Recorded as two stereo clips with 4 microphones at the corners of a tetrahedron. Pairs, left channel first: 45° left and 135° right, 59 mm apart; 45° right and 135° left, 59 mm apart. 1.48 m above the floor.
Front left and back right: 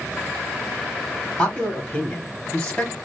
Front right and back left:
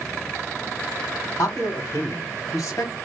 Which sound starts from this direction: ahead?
A man speaking, at 1.4 s.